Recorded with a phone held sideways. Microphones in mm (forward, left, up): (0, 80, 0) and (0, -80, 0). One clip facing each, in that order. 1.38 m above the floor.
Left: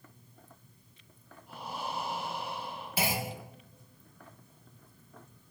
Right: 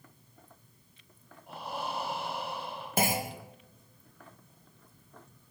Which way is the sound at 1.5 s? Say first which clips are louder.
Right 2 dB; 70° right (ahead or behind).